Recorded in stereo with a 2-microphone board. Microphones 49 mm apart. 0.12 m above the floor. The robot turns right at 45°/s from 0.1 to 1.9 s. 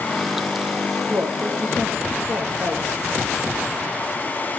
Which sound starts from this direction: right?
A woman speaking, at 1.1 s.